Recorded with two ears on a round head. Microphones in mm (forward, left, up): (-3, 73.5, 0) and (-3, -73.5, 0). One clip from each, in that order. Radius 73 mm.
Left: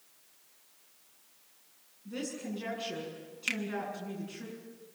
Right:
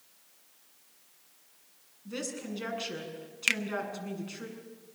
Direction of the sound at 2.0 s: 45° right (ahead or behind).